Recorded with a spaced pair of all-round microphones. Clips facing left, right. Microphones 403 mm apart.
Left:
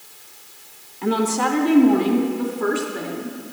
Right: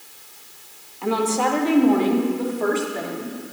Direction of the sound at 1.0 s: 30° left (ahead or behind).